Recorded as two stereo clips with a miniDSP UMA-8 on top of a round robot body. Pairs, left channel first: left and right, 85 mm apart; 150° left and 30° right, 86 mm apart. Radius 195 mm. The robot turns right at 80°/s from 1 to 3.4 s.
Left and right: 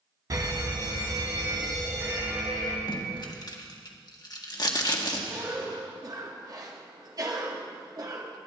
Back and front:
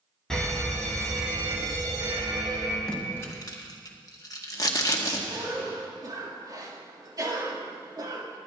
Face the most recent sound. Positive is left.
turn(degrees=-60)